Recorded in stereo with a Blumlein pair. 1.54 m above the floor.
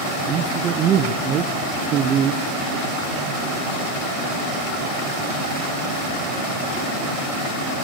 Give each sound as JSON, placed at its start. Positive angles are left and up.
{"t": 0.3, "sound": "a man speaking", "azimuth_deg": -30, "distance_m": 0.9}